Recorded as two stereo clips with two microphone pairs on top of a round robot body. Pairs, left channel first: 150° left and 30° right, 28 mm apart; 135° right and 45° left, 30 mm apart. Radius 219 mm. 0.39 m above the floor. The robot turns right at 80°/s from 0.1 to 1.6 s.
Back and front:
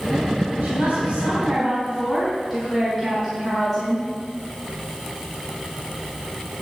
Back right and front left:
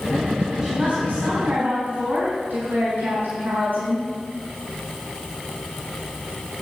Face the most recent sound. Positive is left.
turn(degrees=55)